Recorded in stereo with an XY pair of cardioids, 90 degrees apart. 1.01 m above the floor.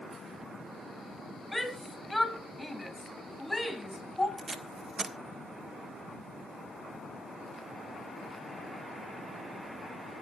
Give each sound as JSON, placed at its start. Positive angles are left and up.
{"t": 1.5, "sound": "a shout", "azimuth_deg": 0, "distance_m": 6.5}
{"t": 4.4, "sound": "tape being pulled", "azimuth_deg": -45, "distance_m": 1.6}